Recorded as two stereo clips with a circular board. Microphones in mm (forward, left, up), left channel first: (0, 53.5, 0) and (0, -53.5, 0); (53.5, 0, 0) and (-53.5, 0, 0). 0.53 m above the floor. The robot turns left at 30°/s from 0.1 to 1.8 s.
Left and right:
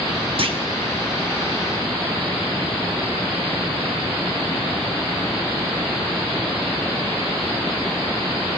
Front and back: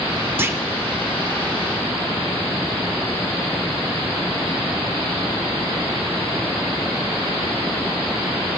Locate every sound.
0.4 s a clunk: 115° right, 0.6 m; by 0.6 s 120° right, 0.6 m